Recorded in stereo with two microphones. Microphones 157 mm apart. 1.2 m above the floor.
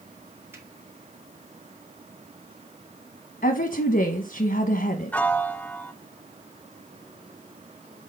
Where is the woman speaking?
80° left, 0.9 m.